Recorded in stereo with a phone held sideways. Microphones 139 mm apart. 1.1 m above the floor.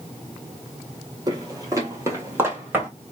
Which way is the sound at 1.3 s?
30° right (ahead or behind).